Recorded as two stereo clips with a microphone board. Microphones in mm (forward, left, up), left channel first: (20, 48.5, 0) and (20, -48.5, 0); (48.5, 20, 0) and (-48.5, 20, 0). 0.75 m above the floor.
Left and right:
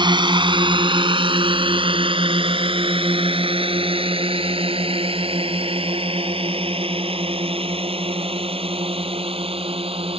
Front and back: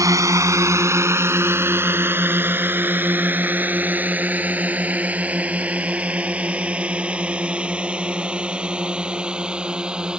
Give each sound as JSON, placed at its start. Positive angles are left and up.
{"t": 0.0, "sound": "a drone", "azimuth_deg": -125}